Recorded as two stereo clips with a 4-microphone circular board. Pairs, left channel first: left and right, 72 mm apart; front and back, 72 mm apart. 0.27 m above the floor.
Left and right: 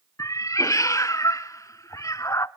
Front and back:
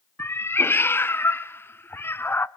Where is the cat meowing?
55° left, 0.6 m.